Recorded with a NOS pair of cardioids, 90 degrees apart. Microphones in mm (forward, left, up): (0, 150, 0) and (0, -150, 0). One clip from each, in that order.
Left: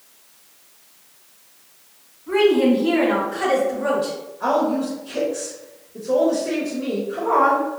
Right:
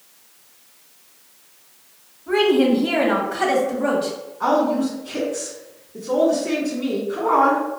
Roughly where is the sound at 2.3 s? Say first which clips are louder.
Even; ahead right.